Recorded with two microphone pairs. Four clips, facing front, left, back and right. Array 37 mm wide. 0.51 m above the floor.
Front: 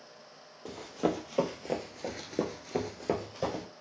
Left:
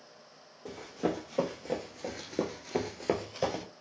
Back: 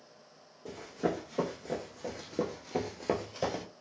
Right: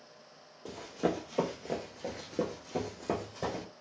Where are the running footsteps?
20° right, 1.1 m; by 3.6 s 115° left, 0.8 m.